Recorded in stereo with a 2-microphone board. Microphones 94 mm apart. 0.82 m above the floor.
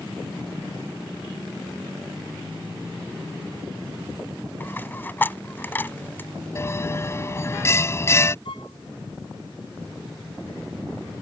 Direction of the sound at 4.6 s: 20° left (ahead or behind).